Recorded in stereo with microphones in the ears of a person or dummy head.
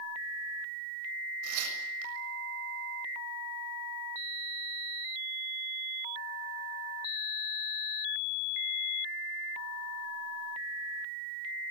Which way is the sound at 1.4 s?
90° right.